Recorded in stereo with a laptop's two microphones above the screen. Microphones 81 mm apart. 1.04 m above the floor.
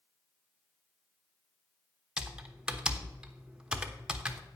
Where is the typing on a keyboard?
10° right (ahead or behind), 1.0 m.